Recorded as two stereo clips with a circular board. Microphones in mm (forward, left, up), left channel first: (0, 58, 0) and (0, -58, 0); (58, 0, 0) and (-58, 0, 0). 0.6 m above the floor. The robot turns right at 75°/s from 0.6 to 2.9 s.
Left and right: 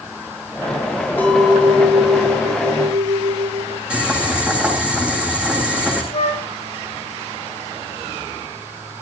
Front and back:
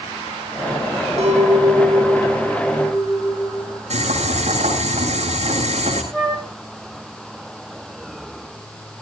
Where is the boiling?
170° right, 8.5 m.